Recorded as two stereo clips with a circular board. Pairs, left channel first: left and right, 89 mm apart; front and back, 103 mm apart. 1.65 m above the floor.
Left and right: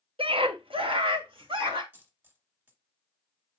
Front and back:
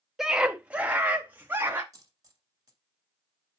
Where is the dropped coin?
145° right, 2 m.